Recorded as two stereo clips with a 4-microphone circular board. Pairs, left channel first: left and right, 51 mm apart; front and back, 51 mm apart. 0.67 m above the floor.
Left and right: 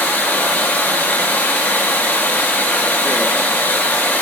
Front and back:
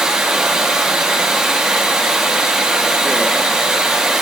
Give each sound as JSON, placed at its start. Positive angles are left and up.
{"t": 0.0, "sound": "running water", "azimuth_deg": 110, "distance_m": 1.0}